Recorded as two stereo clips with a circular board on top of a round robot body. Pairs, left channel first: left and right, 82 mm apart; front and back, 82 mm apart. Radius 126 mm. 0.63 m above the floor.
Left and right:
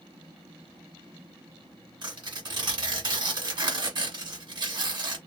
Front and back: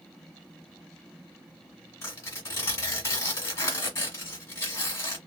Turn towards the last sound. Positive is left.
turn(degrees=-60)